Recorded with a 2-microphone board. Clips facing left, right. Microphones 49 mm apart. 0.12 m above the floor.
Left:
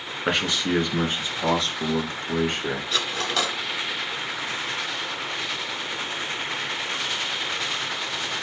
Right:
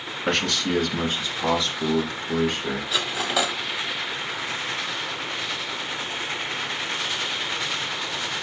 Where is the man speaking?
15° left (ahead or behind), 1.2 m; by 2.8 s 45° left (ahead or behind), 2 m.